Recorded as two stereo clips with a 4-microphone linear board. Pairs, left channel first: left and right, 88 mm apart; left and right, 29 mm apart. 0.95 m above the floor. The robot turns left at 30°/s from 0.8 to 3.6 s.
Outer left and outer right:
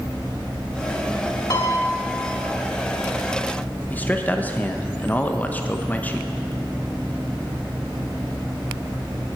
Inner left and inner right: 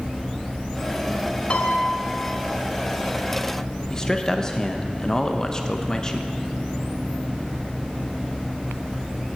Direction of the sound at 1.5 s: 45° left (ahead or behind).